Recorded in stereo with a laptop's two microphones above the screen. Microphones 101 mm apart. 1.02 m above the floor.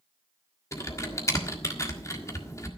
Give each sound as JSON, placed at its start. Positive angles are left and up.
{"t": 0.7, "sound": "typing on a keyboard", "side_deg": 30, "distance_m": 1.6}